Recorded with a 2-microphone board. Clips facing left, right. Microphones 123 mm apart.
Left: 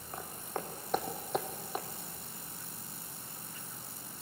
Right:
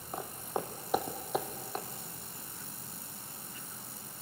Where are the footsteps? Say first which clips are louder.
Right 4 dB; 20° right (ahead or behind), 1.8 m; by 1.9 s 10° left (ahead or behind), 1.2 m.